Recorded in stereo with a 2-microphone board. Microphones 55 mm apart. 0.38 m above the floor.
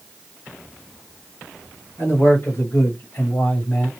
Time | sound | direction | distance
2.0 | a man speaking | 50° left (ahead or behind) | 2.0 m